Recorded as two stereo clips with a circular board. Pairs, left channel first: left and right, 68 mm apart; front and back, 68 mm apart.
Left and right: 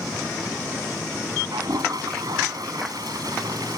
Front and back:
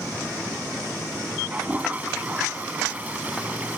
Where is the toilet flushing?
110° right.